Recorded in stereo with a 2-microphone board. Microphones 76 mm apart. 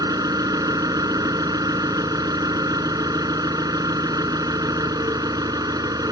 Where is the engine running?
60° right (ahead or behind).